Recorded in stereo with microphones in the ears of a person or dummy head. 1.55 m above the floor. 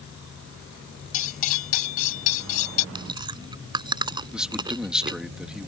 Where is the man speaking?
5° right (ahead or behind).